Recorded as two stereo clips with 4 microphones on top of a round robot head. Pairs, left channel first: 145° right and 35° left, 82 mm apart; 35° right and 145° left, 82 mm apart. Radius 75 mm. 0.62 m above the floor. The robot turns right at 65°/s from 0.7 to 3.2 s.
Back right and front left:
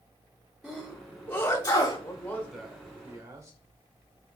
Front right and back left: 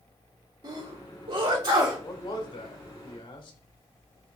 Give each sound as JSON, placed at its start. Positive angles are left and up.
{"t": 0.6, "sound": "a sneeze", "azimuth_deg": 125, "distance_m": 2.5}
{"t": 2.0, "sound": "a man speaking", "azimuth_deg": -95, "distance_m": 2.5}